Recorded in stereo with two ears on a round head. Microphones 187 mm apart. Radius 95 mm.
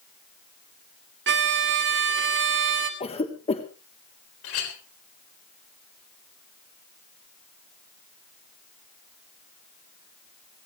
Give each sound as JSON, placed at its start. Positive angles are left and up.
{"t": 1.3, "sound": "a violin", "side_deg": -60, "distance_m": 2.5}
{"t": 3.0, "sound": "a cough", "side_deg": 30, "distance_m": 1.4}
{"t": 4.4, "sound": "a clink", "side_deg": 75, "distance_m": 3.5}